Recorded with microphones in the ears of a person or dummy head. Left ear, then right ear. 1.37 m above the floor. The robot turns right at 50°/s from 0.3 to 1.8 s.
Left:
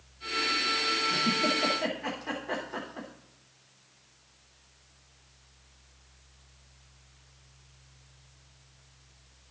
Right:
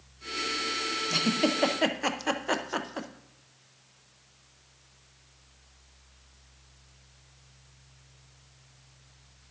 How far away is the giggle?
About 0.7 m.